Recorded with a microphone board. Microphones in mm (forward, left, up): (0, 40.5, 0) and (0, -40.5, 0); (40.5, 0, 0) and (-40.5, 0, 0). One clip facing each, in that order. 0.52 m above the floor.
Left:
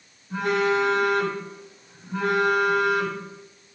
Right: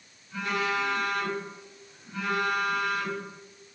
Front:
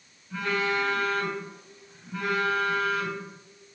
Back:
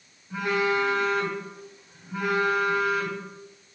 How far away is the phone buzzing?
About 2.5 m.